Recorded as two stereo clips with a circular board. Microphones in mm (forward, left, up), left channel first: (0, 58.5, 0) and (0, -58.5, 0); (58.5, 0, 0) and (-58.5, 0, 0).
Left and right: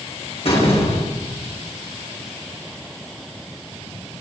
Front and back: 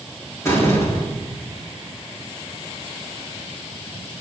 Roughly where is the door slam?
Ahead left.